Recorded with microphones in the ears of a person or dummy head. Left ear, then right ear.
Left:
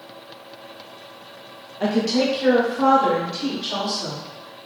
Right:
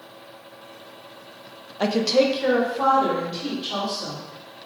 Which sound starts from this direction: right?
A woman speaking, at 1.8 s.